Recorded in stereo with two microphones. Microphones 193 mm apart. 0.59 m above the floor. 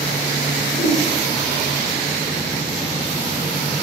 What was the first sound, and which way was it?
A whoosh, 80° left.